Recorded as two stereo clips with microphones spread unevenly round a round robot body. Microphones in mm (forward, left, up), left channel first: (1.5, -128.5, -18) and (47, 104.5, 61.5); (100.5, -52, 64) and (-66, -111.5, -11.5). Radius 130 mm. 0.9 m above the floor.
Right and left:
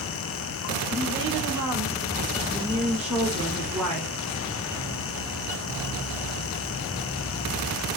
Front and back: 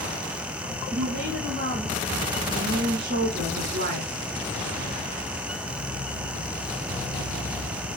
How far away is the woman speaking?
About 5.5 m.